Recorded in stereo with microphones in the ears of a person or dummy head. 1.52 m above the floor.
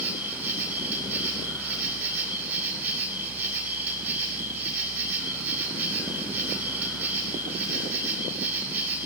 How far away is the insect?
About 5.5 m.